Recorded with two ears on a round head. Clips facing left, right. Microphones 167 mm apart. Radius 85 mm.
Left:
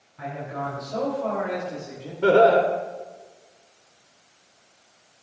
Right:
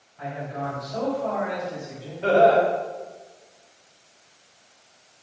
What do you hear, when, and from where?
0.2 s a man speaking: 55° left (ahead or behind), 3.5 m; by 2.1 s 35° left (ahead or behind), 3.5 m
2.2 s laughter: 65° left (ahead or behind), 1.3 m